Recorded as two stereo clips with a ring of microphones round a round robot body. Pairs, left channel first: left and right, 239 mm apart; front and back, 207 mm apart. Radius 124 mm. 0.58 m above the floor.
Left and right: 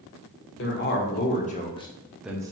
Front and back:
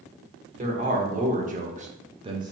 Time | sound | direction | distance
0.6 | a man speaking | 130° left | 1.6 m